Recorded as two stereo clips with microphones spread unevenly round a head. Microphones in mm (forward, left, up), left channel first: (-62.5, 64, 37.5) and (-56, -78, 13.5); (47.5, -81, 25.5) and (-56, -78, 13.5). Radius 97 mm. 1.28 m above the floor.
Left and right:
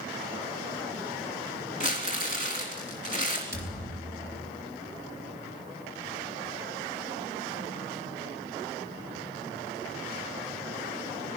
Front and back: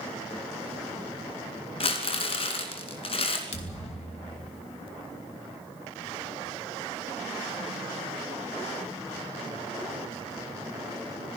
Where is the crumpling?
20° right, 3 m.